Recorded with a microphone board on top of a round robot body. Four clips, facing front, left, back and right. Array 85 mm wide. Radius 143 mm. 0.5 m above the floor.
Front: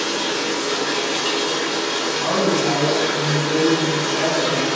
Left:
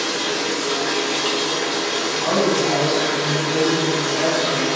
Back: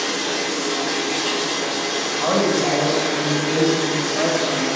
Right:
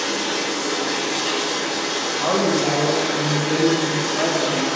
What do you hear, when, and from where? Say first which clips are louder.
0.0 s running water: left 1 dB, front 1 dB; 45° left, 1.3 m
2.2 s a woman speaking: even, back 1 dB; 155° right, 1.2 m